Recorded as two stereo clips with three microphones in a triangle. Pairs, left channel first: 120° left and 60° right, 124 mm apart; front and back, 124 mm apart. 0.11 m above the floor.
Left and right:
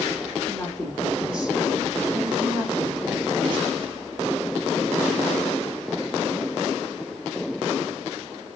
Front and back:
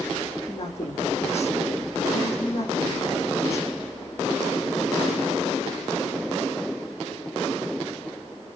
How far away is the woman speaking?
About 4.5 m.